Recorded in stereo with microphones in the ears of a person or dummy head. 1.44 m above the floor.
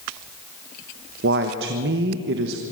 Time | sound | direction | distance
1.2 | a woman speaking | 65° right (ahead or behind) | 1.2 m